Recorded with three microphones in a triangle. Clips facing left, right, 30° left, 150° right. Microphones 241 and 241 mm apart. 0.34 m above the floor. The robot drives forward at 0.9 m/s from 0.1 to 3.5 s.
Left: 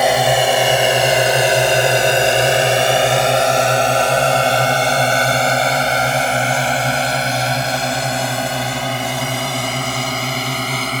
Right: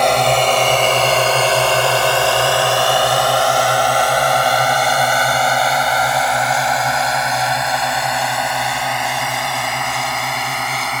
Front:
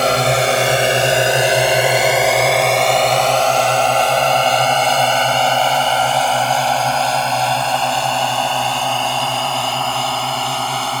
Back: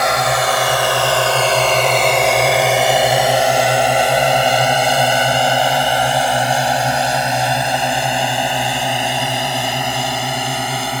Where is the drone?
10° left; by 11.0 s 140° left.